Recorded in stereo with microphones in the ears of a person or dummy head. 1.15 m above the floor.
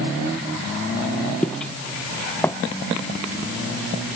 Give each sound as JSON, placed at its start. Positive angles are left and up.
{"t": 1.4, "sound": "footsteps", "side_deg": 5}